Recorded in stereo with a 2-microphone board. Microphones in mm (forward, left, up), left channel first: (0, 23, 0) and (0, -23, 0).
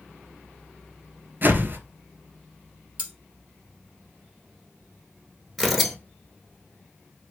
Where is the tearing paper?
Centre (ahead or behind), 0.8 m.